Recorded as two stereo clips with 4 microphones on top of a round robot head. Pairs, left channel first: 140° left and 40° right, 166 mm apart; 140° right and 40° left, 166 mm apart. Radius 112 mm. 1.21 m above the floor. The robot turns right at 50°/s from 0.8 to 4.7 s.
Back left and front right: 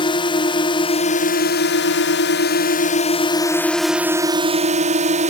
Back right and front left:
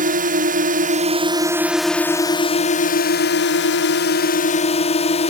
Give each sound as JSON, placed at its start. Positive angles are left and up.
{"t": 0.0, "sound": "a drone", "azimuth_deg": 80}